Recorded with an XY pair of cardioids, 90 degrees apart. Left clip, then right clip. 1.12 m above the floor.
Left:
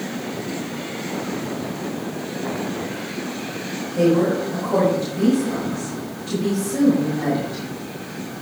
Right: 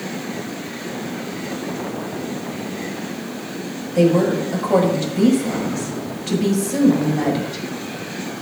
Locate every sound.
4.0 s a woman speaking: 65° right, 6 m